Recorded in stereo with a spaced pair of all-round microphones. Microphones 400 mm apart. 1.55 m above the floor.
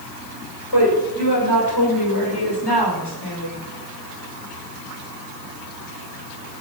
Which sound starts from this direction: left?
A woman speaking, at 0.7 s.